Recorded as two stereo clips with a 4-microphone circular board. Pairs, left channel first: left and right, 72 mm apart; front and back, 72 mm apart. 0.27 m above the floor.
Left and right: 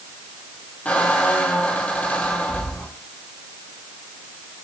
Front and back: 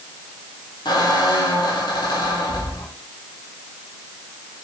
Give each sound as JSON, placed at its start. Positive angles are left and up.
{"t": 0.8, "sound": "a squeak", "azimuth_deg": 20, "distance_m": 2.0}